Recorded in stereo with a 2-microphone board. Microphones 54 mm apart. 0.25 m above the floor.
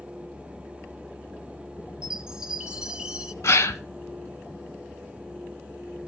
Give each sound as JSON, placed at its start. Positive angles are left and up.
{"t": 2.0, "sound": "a chime", "side_deg": -15, "distance_m": 0.6}
{"t": 3.4, "sound": "a gasp", "side_deg": 60, "distance_m": 0.8}